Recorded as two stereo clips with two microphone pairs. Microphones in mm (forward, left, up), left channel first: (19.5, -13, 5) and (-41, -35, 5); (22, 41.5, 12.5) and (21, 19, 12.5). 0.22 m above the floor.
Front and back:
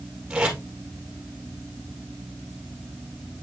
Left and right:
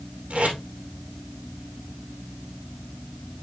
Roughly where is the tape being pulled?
Right.